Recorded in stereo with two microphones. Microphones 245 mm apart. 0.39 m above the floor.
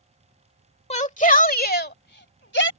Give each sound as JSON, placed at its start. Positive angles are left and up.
{"t": 0.9, "sound": "a shout", "side_deg": 25}